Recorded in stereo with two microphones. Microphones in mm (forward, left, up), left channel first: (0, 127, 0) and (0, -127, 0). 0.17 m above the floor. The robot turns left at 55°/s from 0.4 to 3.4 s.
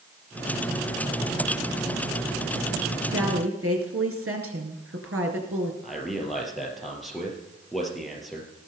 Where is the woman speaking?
60° right (ahead or behind), 2.5 m.